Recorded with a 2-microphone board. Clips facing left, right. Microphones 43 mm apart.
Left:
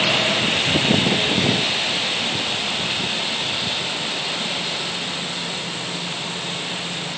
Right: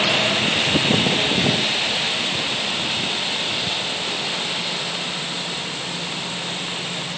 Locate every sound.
Only background noise.